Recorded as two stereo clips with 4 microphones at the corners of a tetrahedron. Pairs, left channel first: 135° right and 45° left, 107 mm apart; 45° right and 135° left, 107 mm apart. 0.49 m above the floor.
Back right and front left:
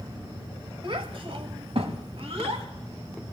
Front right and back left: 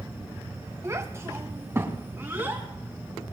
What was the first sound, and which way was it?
A child speaking, 75° left.